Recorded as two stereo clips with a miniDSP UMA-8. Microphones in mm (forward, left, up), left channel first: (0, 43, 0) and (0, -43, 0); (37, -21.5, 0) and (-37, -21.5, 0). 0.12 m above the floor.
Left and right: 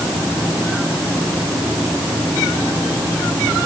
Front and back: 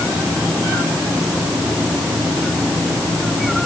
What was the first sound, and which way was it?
Only background noise.